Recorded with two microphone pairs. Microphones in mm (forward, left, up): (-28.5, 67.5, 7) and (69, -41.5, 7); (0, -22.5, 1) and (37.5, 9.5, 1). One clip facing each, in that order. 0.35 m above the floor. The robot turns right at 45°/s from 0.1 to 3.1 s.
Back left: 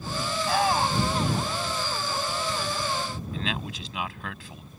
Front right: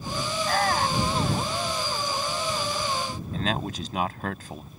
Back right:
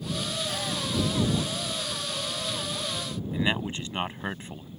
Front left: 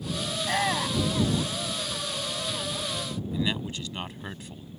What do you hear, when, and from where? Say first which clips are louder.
0.4 s a shout: back left 1 dB, front left 5 dB; 45° left; by 1.3 s 85° left
3.3 s a man speaking: front right 7 dB, back right 3 dB; 85° right